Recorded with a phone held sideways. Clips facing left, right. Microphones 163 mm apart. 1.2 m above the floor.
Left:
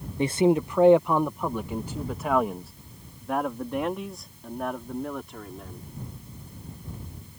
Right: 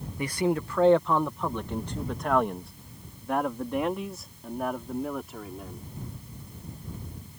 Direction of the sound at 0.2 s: 25° left (ahead or behind).